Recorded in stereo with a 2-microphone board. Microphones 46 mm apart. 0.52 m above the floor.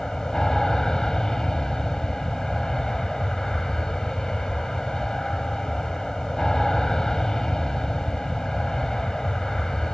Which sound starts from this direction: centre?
An aircraft, at 0.0 s.